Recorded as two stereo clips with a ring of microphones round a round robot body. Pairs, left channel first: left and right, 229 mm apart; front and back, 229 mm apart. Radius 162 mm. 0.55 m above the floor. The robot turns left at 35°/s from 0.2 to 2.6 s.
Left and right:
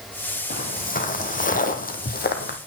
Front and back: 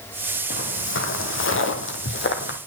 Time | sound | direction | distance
0.5 | footsteps | 40° left | 1.9 m